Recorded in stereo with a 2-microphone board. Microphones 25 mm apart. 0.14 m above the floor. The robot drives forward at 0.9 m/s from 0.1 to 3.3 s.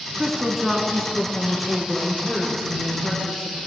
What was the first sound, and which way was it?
A woman speaking, 5° right (ahead or behind).